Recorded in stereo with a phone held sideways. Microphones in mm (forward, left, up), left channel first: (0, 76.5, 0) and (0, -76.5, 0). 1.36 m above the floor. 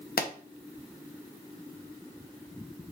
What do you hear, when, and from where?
0.2 s a pop: 80° left, 0.6 m